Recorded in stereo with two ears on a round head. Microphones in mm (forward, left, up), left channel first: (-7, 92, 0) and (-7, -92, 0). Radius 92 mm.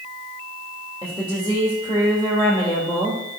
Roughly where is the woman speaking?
Centre.